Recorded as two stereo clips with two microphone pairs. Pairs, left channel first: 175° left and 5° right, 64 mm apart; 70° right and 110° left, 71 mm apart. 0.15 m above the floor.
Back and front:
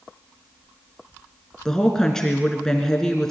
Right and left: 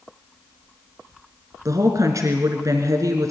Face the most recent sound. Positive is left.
turn(degrees=100)